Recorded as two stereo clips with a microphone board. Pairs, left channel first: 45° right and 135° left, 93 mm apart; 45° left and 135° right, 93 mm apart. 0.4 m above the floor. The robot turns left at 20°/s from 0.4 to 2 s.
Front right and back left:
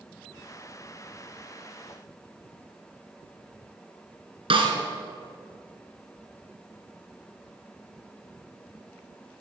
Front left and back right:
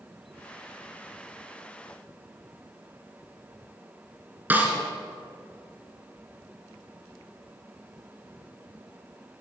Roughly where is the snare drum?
Behind left.